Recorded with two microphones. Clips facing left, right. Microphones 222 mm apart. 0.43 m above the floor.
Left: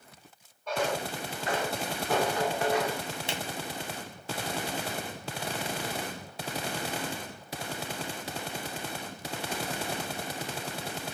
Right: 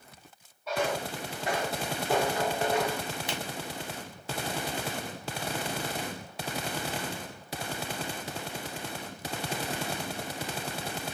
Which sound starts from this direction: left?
A finger snap, at 3.3 s.